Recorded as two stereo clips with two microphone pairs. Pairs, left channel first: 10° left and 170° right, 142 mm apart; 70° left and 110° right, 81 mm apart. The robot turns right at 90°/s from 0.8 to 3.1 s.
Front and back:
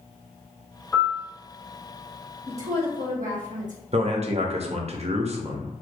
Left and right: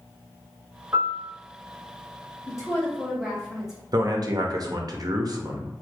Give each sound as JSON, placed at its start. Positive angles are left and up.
{"t": 0.9, "sound": "a piano", "azimuth_deg": -65, "distance_m": 0.8}
{"t": 2.5, "sound": "a woman speaking", "azimuth_deg": 110, "distance_m": 1.3}
{"t": 3.9, "sound": "a man speaking", "azimuth_deg": -135, "distance_m": 0.6}